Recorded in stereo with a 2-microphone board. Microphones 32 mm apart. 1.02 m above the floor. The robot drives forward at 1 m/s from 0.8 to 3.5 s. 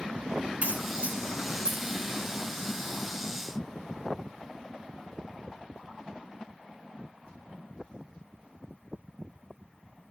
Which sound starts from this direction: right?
A crack, at 0.6 s.